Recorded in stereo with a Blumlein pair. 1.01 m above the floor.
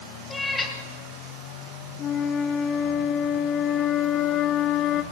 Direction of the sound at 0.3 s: 10° left.